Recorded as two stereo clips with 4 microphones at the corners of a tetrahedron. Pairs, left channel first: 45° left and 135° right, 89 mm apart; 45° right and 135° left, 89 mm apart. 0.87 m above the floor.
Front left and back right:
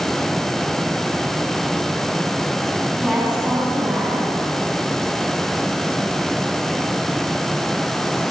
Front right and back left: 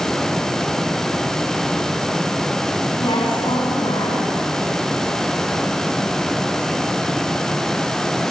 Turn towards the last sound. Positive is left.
turn(degrees=-55)